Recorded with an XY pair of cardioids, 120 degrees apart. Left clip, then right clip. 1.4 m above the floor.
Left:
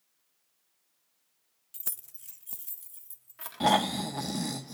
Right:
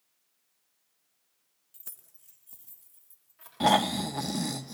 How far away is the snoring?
About 1.0 m.